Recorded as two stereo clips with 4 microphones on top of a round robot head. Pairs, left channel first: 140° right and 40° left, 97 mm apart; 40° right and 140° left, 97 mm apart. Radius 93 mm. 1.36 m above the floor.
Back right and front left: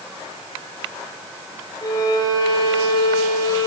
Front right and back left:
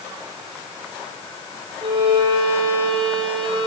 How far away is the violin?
About 6 m.